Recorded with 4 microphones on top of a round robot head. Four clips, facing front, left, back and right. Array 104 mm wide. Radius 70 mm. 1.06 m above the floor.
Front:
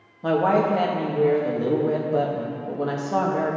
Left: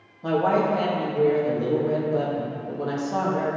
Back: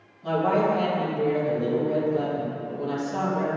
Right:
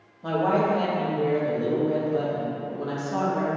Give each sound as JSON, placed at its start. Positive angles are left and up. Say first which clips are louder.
{"t": 0.2, "sound": "a woman speaking", "louder": "left 1 dB, front 3 dB", "azimuth_deg": 10, "distance_m": 1.8}